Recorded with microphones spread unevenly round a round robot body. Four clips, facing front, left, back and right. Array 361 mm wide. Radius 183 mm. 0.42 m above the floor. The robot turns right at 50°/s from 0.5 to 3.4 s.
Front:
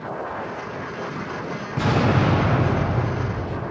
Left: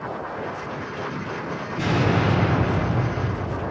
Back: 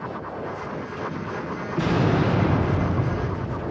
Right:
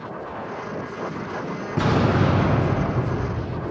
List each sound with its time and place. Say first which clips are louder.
1.8 s an explosion: right 2 dB, front 1 dB; 75° right, 4 m; by 3.6 s 10° left, 4 m